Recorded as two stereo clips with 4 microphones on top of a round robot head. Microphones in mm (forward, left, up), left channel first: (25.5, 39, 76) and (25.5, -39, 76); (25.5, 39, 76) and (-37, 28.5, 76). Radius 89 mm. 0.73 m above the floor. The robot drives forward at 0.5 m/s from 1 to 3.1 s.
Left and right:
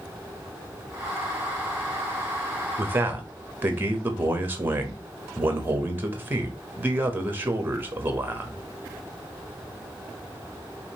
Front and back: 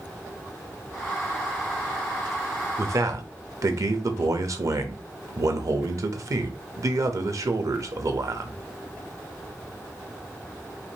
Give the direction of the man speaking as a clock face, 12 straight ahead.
5 o'clock.